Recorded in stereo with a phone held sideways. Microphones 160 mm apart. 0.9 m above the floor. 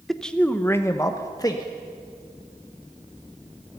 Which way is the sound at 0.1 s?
Centre (ahead or behind).